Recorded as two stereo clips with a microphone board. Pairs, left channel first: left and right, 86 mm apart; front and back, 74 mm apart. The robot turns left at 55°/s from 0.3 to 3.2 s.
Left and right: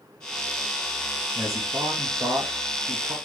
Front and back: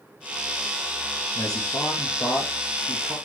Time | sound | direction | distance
1.4 | a man speaking | 5° left | 2 m